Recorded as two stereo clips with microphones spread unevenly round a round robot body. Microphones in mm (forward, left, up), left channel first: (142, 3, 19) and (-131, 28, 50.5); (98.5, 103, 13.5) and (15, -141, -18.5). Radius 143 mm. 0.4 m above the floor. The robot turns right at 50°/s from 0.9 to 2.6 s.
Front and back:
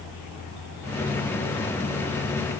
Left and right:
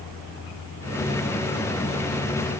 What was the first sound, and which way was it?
Only background noise.